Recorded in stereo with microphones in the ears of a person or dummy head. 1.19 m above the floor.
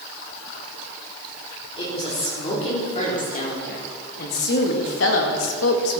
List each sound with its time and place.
1.8 s a woman speaking: 25° left (ahead or behind), 4.5 m; by 6.0 s 75° left (ahead or behind), 1.9 m